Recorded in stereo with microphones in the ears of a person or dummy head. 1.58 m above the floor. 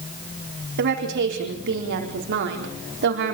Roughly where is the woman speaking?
Right.